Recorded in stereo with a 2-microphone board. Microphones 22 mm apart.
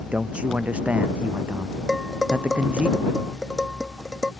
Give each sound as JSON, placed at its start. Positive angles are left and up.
{"t": 0.1, "sound": "a man speaking", "side_deg": -75}
{"t": 1.9, "sound": "dishes clattering", "side_deg": -15}